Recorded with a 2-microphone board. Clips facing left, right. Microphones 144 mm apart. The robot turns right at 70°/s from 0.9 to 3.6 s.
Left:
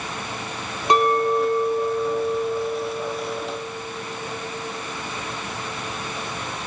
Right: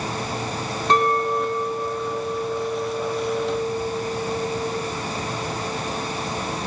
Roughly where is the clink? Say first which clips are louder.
Left 2 dB; centre.